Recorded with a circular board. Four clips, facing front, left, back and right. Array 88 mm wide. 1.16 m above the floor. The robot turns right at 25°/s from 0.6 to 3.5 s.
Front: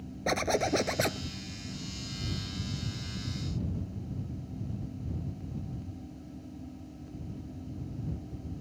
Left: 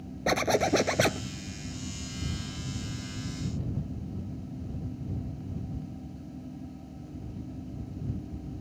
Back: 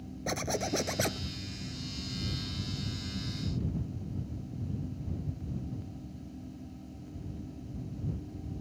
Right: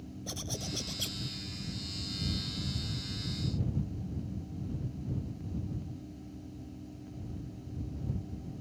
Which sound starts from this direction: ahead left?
A zipper, at 0.3 s.